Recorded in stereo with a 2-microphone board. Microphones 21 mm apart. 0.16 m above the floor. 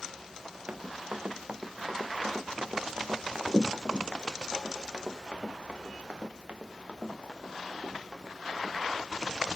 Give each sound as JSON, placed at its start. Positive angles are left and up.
{"t": 0.7, "sound": "running footsteps", "side_deg": -65, "distance_m": 1.4}